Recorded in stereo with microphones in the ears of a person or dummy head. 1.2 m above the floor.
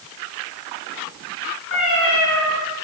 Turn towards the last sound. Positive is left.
turn(degrees=20)  # may be behind; listen again after turning